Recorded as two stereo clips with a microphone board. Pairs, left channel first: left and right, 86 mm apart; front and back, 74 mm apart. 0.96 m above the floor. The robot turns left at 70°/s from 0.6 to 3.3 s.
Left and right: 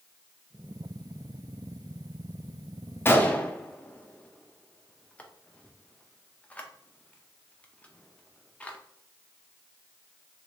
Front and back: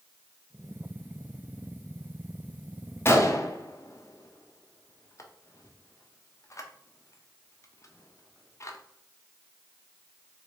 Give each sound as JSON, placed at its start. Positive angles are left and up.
{"t": 3.0, "sound": "a gunshot", "azimuth_deg": 40, "distance_m": 0.5}